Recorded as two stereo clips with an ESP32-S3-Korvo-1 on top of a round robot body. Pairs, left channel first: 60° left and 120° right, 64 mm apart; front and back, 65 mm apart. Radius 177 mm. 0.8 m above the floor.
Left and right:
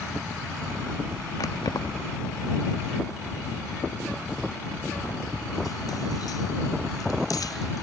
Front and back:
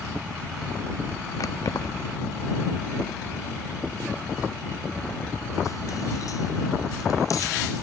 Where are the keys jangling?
35° left.